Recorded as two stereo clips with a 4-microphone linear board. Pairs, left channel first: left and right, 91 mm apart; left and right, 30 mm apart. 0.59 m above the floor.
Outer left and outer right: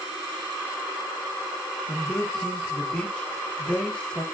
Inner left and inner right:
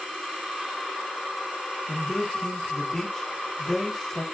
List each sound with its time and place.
1.9 s a man speaking: 10° left (ahead or behind), 1.0 m